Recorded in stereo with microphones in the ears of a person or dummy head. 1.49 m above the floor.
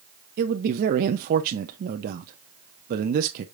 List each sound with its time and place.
0.4 s a man speaking: 50° right (ahead or behind), 0.8 m